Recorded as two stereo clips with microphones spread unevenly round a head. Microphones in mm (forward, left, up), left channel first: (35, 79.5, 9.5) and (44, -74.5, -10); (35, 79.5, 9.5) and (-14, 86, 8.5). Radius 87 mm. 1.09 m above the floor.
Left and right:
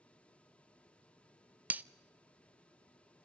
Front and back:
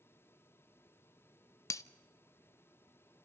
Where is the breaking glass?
5° right, 0.6 m.